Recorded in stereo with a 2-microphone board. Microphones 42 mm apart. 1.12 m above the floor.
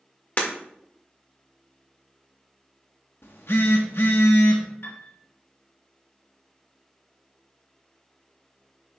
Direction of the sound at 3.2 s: 70° left (ahead or behind).